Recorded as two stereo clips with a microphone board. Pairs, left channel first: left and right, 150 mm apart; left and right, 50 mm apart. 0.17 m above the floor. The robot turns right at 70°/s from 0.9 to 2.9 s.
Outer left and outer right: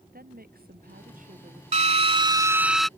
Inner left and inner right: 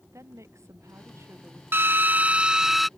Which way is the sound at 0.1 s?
85° right.